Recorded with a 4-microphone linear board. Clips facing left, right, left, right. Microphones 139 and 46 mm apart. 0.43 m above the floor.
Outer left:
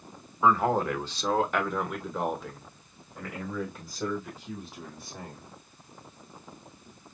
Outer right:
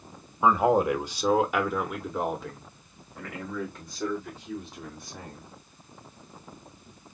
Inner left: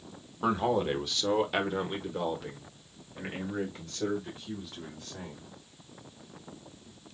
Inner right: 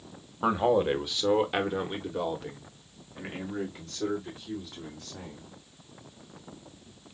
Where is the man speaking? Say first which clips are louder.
Outer right 3 dB, inner right 3 dB; 15° right (ahead or behind), 1.0 m; by 5.5 s 5° left (ahead or behind), 3 m.